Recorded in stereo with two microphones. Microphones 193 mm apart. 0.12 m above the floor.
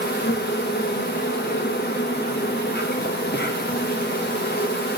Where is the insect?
55° left (ahead or behind), 1.2 m.